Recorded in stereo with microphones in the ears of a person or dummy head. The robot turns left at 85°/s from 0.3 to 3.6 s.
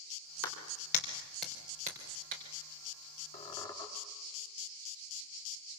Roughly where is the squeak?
Left.